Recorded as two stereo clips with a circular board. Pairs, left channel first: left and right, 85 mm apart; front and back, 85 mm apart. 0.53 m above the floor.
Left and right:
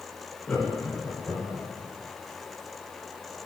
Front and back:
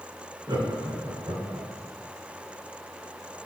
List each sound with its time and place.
0.5 s laughter: 165° left, 1.8 m; by 1.7 s straight behind, 2.5 m